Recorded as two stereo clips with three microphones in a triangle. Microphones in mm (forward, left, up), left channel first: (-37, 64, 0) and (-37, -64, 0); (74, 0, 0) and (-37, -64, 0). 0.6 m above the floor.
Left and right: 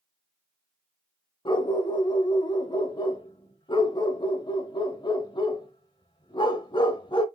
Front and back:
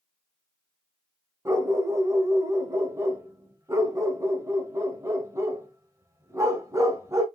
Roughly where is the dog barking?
Behind left.